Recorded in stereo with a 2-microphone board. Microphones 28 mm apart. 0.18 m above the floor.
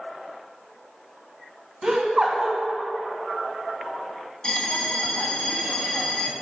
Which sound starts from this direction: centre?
Laughter, at 1.8 s.